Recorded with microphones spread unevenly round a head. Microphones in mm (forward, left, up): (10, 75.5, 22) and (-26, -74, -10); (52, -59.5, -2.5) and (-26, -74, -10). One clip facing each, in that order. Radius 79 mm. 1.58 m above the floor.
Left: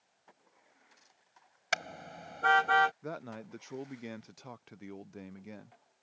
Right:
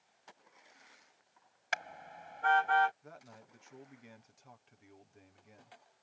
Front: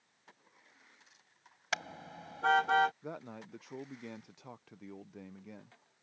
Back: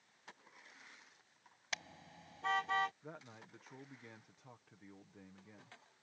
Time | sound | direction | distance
1.7 | a car horn | 50° left | ?
3.0 | a man speaking | 60° left | ?